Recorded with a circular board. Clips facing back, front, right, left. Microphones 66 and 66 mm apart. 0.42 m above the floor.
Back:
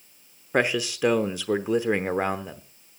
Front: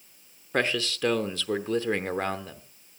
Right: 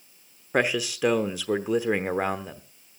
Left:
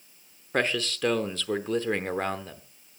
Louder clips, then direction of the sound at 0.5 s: Back 3 dB, right 3 dB; 140° right.